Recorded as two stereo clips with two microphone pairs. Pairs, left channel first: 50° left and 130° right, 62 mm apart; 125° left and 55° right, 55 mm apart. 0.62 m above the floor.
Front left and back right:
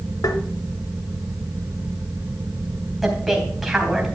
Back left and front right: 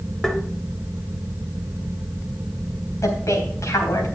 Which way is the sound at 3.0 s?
140° left.